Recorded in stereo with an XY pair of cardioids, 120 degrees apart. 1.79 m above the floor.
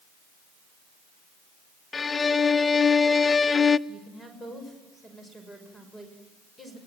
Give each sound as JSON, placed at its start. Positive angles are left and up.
{"t": 1.9, "sound": "a violin", "azimuth_deg": 25, "distance_m": 0.6}
{"t": 3.9, "sound": "a woman speaking", "azimuth_deg": 15, "distance_m": 6.0}